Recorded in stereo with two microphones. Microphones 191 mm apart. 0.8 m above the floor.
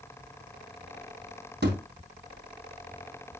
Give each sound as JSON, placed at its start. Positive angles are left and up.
{"t": 1.6, "sound": "a thud", "side_deg": -60, "distance_m": 3.0}